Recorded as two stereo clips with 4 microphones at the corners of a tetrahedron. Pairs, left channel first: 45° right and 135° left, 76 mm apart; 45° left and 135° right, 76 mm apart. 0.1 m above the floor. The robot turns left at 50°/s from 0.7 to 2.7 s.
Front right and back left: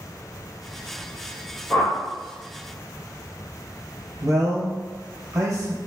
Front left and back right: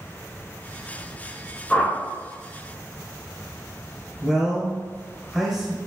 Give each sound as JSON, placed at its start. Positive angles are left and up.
{"t": 1.7, "sound": "a whoosh", "azimuth_deg": -15, "distance_m": 1.5}
{"t": 4.2, "sound": "a man speaking", "azimuth_deg": 140, "distance_m": 1.7}